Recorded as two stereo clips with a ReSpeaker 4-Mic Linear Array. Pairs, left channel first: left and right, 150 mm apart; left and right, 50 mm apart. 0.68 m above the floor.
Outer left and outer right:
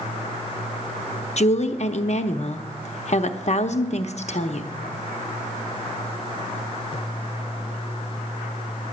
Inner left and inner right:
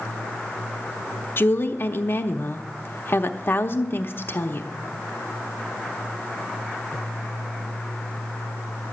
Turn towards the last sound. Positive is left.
turn(degrees=50)  # may be behind; listen again after turning